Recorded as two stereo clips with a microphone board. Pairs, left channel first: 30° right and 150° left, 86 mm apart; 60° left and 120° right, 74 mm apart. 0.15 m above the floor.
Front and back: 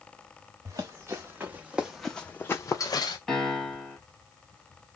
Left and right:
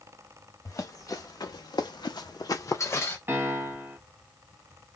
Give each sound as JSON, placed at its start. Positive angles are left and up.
{"t": 0.7, "sound": "running footsteps", "azimuth_deg": 100, "distance_m": 1.1}
{"t": 3.3, "sound": "a piano", "azimuth_deg": -110, "distance_m": 1.1}